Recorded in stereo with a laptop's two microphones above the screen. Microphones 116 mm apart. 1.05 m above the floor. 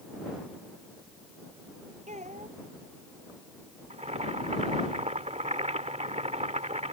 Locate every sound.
2.1 s a child speaking: 90° right
3.9 s boiling: 80° right